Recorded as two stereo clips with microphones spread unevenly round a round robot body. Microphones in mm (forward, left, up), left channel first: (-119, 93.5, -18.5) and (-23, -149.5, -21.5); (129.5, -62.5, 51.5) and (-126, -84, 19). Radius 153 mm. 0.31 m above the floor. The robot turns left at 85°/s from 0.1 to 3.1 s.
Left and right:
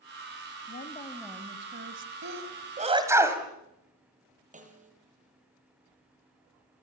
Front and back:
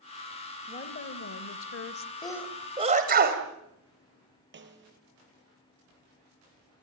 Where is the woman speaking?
70° left, 1.3 m; by 2.1 s 50° right, 1.3 m.